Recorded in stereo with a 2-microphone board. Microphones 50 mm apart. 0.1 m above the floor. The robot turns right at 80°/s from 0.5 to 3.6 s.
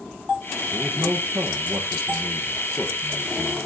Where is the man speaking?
135° right, 2.5 m; by 3.6 s 95° left, 2.5 m.